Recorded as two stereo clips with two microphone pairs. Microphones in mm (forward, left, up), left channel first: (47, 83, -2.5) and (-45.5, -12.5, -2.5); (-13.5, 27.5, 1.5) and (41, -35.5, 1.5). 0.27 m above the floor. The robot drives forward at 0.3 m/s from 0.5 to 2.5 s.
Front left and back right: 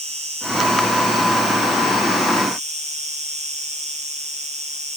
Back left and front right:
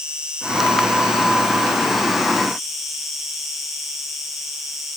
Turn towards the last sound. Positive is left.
turn(degrees=-135)